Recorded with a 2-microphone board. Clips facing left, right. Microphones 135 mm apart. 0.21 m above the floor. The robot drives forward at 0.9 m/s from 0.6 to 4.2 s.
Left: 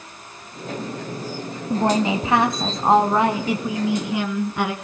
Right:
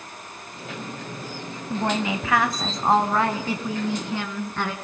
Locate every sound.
1.7 s a woman speaking: 25° left (ahead or behind), 1.2 m; by 4.7 s 10° left (ahead or behind), 2.5 m